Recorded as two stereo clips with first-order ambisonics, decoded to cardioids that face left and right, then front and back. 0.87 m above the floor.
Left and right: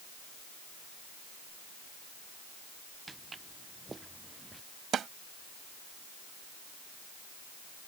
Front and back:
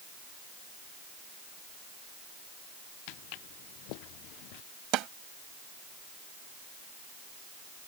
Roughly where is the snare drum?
Behind right.